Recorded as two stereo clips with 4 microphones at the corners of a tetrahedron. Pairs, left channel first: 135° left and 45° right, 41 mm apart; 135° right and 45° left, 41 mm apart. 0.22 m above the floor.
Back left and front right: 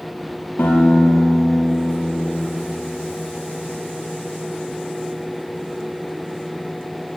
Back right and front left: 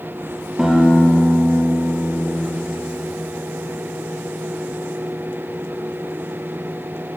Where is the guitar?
125° left, 4 m.